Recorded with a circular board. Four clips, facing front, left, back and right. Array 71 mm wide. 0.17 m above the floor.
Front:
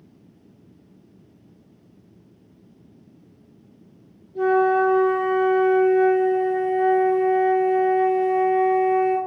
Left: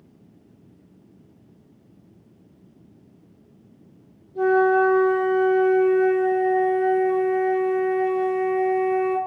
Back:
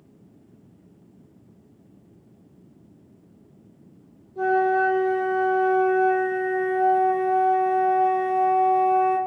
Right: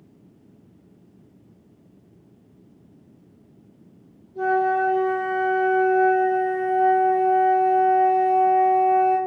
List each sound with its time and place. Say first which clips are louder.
4.3 s a flute: left 3 dB, front 2 dB; 30° left, 1.3 m